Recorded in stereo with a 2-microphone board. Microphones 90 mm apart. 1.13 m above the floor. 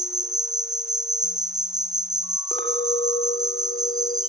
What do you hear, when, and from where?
0.0 s an insect: 45° right (ahead or behind), 1.1 m
2.5 s a clink: 80° left, 2.5 m